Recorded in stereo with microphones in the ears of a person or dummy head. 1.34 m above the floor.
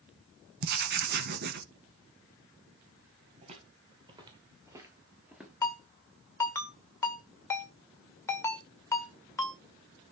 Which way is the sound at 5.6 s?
15° left (ahead or behind).